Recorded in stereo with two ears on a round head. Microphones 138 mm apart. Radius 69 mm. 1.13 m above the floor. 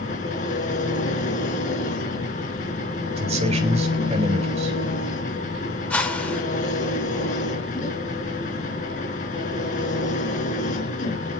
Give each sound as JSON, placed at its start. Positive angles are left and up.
{"t": 0.0, "sound": "an engine running", "side_deg": 55, "distance_m": 4.0}
{"t": 3.2, "sound": "a man speaking", "side_deg": -40, "distance_m": 3.5}
{"t": 5.9, "sound": "a whoosh", "side_deg": 10, "distance_m": 2.5}